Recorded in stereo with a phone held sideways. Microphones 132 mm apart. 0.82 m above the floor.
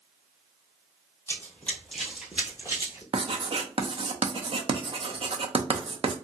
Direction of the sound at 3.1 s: 45° right (ahead or behind).